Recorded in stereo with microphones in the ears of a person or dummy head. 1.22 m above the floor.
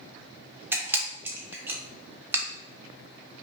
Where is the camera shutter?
10° right (ahead or behind), 1.0 m.